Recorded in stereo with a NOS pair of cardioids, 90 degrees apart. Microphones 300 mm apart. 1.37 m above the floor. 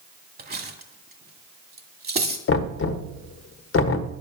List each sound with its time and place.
0.4 s cutlery clinking: 30° right, 2 m
2.5 s knocking: 45° left, 1.3 m